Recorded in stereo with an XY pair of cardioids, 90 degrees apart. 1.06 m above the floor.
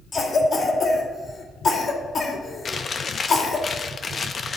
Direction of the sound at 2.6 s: 45° left.